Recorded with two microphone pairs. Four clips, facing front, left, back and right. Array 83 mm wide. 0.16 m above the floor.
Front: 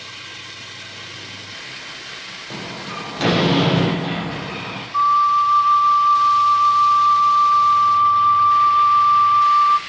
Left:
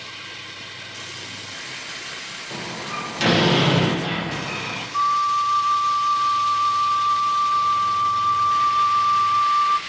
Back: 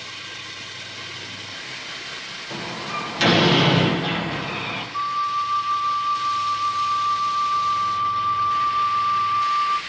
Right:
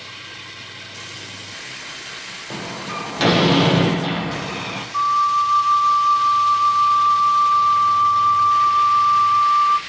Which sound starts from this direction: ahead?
A flute, at 4.9 s.